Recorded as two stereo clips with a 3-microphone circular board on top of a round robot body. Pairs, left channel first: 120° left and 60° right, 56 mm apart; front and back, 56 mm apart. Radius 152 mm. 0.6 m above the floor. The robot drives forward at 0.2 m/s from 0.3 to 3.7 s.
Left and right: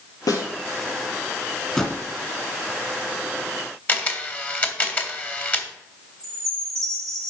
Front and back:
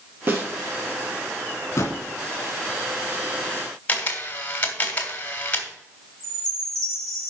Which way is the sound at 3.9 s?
65° left.